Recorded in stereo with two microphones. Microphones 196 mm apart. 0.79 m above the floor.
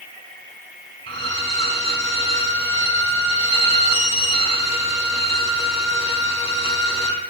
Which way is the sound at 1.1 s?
30° left (ahead or behind).